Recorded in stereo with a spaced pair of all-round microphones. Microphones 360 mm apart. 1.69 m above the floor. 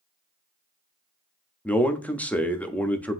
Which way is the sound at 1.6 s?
5° left (ahead or behind).